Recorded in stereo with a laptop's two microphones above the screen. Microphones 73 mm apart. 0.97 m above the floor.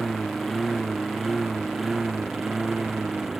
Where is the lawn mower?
Centre (ahead or behind); by 3.4 s 5° right (ahead or behind).